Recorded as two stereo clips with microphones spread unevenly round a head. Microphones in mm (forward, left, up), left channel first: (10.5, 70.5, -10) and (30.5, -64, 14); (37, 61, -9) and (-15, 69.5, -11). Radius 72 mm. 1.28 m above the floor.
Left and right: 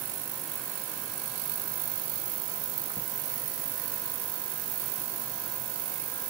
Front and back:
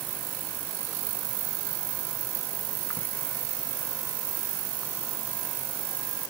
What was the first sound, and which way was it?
Only background noise.